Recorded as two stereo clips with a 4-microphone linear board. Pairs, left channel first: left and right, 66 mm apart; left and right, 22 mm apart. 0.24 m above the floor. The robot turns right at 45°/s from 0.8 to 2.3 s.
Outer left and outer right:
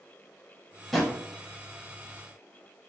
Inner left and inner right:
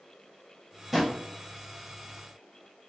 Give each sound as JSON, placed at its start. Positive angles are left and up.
{"t": 0.9, "sound": "a drawer", "side_deg": 5, "distance_m": 0.6}